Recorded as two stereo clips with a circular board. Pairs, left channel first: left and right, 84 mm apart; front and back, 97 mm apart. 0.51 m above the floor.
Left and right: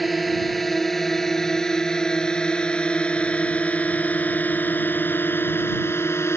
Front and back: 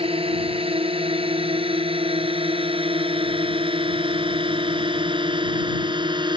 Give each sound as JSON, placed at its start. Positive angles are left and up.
{"t": 0.0, "sound": "a drone", "azimuth_deg": 180}